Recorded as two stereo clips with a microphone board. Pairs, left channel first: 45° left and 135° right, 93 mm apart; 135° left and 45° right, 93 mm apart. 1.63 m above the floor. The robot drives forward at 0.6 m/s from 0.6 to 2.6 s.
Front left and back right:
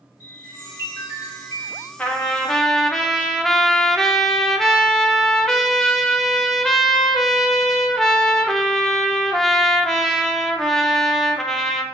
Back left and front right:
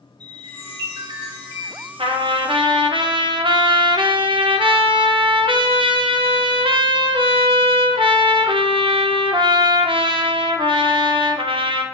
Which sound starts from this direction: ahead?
A chime, at 0.2 s.